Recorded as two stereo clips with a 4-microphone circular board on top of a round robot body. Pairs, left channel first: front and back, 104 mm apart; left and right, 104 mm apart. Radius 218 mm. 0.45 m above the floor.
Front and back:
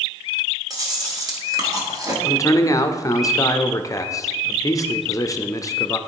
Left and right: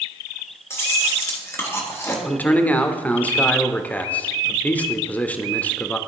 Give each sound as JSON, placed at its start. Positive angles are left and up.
{"t": 0.7, "sound": "chewing", "azimuth_deg": 145, "distance_m": 1.8}
{"t": 2.2, "sound": "a man speaking", "azimuth_deg": 25, "distance_m": 0.8}